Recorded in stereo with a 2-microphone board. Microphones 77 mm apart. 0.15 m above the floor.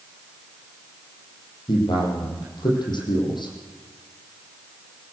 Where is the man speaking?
65° left (ahead or behind), 6 m.